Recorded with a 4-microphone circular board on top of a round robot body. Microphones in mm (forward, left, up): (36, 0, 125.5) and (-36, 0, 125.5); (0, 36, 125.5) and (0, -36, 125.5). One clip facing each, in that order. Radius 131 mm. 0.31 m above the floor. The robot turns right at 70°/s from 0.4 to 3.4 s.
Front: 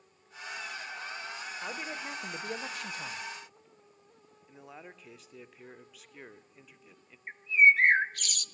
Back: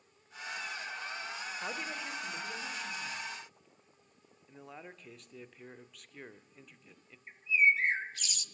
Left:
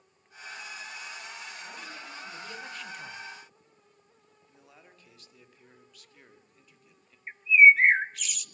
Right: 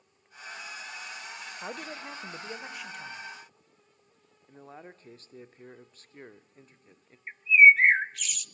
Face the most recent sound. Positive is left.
turn(degrees=0)